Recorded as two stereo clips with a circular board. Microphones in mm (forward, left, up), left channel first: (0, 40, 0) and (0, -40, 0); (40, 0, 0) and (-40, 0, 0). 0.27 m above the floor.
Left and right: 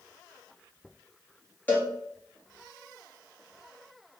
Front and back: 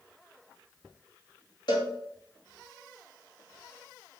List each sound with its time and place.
1.7 s a cowbell: 25° left, 1.2 m